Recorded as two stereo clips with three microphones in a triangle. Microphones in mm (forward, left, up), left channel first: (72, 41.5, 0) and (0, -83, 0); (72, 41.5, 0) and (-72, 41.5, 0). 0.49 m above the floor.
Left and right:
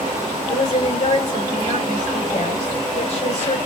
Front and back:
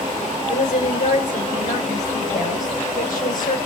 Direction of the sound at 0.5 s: 15° left.